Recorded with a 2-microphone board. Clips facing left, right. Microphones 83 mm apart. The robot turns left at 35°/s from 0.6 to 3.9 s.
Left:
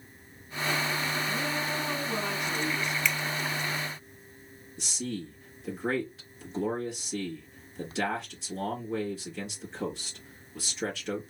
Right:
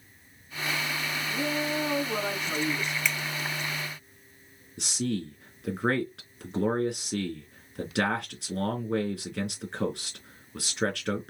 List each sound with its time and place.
1.3 s a woman speaking: 10° right, 2.5 m; by 3.0 s 70° right, 2.5 m
3.0 s a finger snap: 5° right (ahead or behind), 0.9 m; by 3.2 s centre (ahead or behind), 0.9 m
4.8 s a man speaking: 70° right (ahead or behind), 2.5 m